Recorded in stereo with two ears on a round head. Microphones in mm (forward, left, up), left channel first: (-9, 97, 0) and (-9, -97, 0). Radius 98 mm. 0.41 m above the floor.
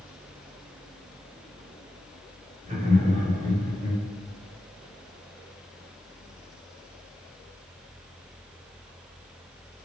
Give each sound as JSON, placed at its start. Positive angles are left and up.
{"t": 2.6, "sound": "laughter", "side_deg": -35, "distance_m": 1.3}